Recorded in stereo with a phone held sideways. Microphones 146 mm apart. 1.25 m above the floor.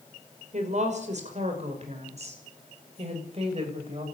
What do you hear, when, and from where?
0.5 s a woman speaking: 55° right (ahead or behind), 6 m; by 4.0 s 45° right (ahead or behind), 8 m